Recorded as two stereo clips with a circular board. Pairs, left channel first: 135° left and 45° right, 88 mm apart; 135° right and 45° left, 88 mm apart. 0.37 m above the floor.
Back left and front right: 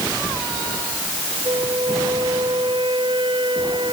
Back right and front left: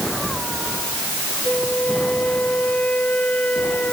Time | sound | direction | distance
1.4 | a flute | 60° right | ?